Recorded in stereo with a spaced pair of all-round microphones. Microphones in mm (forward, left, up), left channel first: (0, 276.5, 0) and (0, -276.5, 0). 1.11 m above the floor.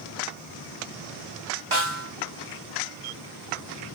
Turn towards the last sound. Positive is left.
turn(degrees=-65)  # may be behind; listen again after turning